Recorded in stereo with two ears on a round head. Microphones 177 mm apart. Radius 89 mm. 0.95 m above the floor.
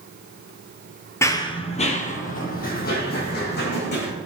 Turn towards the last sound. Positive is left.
turn(degrees=60)  # may be behind; listen again after turning